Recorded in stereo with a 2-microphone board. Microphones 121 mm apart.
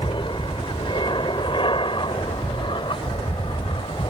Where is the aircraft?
40° left (ahead or behind); by 4.1 s 45° left (ahead or behind).